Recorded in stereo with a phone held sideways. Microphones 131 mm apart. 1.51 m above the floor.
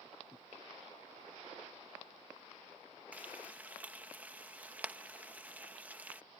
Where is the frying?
10° right (ahead or behind).